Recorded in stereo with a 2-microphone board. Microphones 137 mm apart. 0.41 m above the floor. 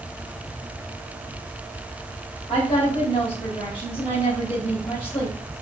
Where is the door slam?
I don't hear a door slam.